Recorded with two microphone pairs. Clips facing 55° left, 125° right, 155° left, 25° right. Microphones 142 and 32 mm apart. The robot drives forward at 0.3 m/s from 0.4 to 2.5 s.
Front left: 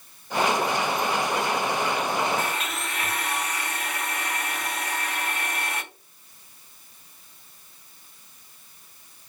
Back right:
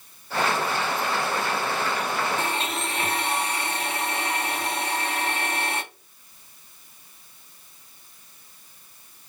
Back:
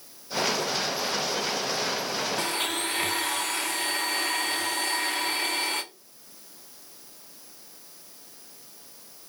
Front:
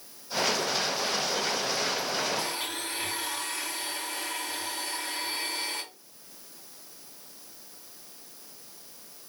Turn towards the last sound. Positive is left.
turn(degrees=170)